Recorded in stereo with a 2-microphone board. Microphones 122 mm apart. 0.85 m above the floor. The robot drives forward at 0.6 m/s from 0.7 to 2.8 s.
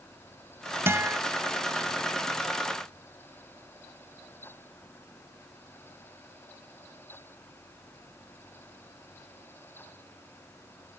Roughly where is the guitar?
Right.